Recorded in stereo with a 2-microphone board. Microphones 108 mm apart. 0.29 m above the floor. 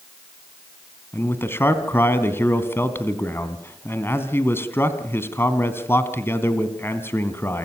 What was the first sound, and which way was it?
A man speaking, 20° left (ahead or behind).